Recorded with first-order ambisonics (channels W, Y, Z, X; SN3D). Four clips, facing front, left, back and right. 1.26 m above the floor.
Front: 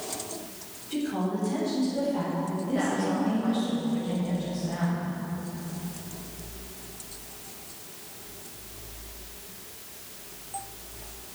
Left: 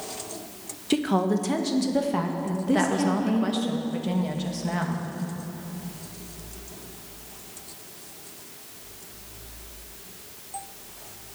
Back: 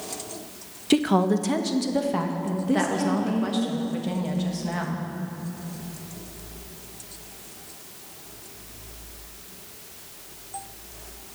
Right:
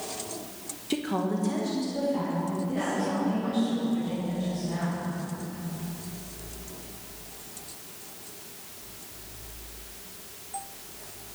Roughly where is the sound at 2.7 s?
Behind left.